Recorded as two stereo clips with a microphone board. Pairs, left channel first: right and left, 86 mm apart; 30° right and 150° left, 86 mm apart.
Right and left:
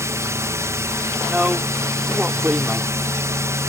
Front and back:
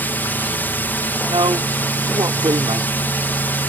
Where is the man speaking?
170° left.